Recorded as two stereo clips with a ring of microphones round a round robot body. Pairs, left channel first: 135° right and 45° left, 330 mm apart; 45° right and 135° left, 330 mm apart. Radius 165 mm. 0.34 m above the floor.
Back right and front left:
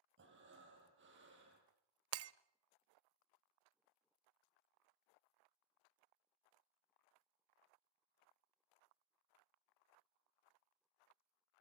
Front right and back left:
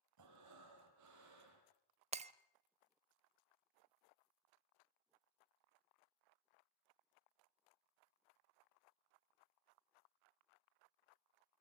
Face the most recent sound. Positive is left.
turn(degrees=70)